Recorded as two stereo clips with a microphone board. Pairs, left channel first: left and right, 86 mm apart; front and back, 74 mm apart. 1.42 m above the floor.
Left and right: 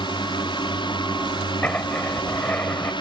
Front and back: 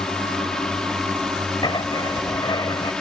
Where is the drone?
85° left.